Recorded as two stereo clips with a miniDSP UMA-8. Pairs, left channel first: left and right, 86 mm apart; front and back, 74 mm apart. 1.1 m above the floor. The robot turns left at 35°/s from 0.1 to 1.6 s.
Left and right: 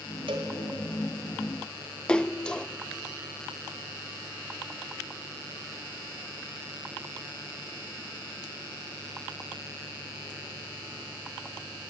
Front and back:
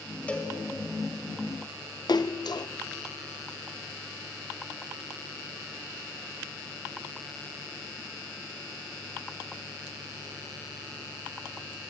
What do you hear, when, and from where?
0.3 s a cowbell: 75° right, 2.5 m; by 0.5 s 80° right, 2.5 m
2.1 s a splash: 10° left, 0.5 m